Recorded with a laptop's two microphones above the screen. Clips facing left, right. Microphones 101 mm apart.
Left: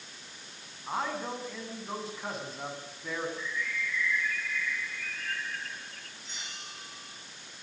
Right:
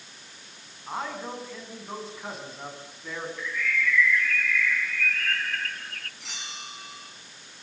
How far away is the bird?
About 0.5 m.